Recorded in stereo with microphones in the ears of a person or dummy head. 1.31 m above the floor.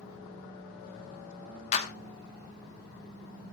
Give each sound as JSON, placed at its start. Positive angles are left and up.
{"t": 1.7, "sound": "a clap", "side_deg": 35, "distance_m": 1.2}